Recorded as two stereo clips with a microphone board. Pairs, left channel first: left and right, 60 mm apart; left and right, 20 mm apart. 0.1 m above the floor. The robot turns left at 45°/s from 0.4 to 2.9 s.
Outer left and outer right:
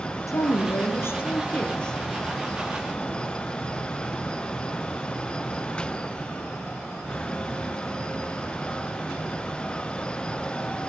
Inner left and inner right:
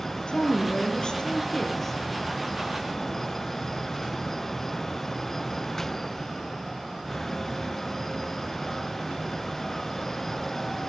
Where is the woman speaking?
85° left, 2 m; by 2.0 s 10° left, 2 m.